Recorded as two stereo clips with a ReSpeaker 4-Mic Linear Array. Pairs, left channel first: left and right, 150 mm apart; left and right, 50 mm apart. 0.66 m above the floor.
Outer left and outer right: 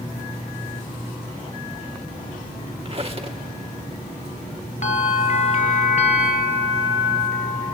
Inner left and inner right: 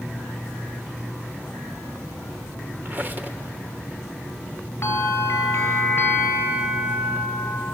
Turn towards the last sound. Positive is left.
turn(degrees=50)  # may be behind; listen again after turning